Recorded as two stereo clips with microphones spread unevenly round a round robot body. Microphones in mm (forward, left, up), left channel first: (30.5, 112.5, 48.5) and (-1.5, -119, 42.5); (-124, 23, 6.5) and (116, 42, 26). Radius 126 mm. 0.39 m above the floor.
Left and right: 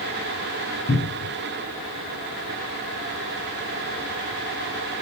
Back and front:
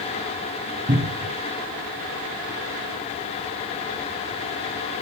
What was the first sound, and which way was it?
A cupboard door, 55° left.